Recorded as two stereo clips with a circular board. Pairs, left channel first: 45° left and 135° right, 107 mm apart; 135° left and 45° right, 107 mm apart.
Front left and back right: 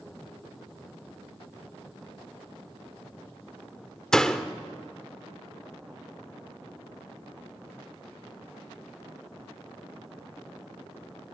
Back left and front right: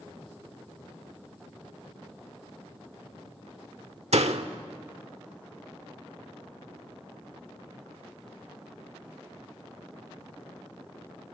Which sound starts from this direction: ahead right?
A door slam, at 4.1 s.